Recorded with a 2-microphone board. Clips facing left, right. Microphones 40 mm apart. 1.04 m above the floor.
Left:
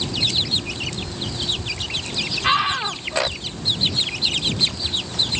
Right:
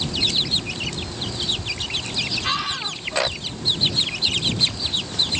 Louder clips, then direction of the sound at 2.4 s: Left 6 dB; 25° left (ahead or behind).